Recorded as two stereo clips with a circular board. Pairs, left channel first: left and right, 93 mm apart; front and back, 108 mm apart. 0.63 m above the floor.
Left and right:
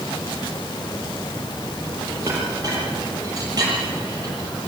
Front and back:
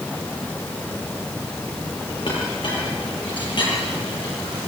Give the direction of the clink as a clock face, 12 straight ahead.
1 o'clock.